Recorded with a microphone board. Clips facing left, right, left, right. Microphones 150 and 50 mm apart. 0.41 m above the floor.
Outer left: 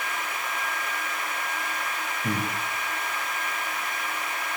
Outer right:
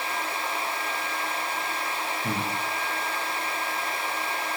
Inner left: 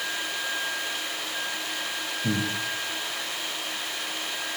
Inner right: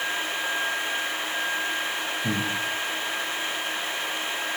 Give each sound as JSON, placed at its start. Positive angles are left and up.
{"t": 2.2, "sound": "breathing", "side_deg": 10, "distance_m": 6.5}